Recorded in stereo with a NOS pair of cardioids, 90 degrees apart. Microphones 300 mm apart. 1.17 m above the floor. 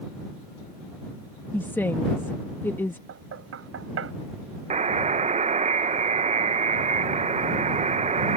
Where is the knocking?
50° right.